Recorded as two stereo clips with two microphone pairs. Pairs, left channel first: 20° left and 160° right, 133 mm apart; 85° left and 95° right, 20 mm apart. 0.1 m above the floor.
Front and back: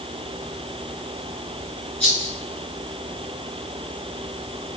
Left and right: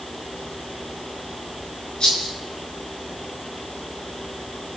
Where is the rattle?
100° left, 4 m.